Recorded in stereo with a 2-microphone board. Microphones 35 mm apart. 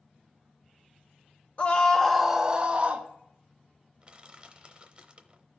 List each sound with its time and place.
1.6 s a scream: 40° left (ahead or behind), 1.0 m; by 3.1 s 45° right (ahead or behind), 1.5 m
4.0 s crushing: 30° right (ahead or behind), 0.7 m